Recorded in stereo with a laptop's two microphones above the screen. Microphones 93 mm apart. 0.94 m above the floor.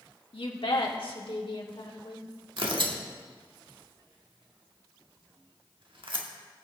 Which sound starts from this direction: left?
A woman speaking, at 0.3 s.